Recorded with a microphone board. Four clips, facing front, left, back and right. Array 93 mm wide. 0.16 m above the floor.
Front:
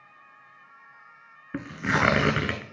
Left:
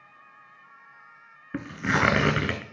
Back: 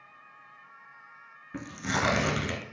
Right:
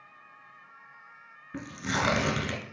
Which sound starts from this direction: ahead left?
Tearing paper, at 1.5 s.